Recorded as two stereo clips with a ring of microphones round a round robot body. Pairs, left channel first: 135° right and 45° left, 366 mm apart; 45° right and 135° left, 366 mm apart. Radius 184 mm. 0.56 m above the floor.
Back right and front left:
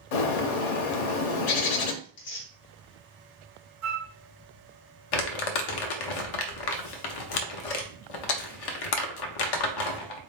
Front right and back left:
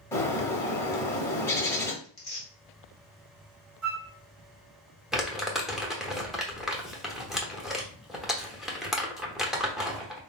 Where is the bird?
130° right, 0.6 m.